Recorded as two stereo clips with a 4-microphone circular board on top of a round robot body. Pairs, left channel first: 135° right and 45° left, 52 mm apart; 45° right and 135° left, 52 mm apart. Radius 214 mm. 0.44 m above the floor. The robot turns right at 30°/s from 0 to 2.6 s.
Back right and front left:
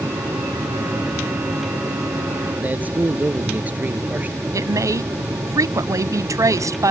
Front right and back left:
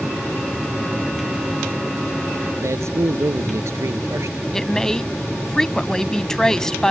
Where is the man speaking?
105° left.